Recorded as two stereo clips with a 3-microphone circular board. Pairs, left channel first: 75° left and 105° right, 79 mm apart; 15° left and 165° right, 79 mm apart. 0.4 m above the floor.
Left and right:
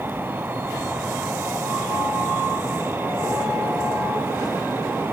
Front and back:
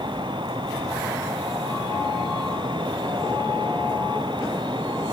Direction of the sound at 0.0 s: 170° right.